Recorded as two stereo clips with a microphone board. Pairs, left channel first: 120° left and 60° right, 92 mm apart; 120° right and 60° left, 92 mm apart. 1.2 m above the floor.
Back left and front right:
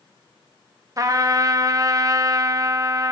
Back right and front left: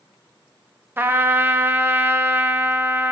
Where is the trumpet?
5° right, 0.7 m.